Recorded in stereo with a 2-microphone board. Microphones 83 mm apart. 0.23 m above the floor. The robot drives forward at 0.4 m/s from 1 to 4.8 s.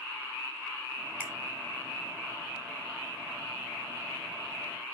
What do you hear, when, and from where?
1.2 s a finger snap: 20° right (ahead or behind), 0.8 m